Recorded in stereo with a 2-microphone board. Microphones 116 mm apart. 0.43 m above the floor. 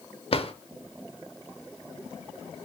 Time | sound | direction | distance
0.3 | a drawer | 55° left (ahead or behind) | 0.6 m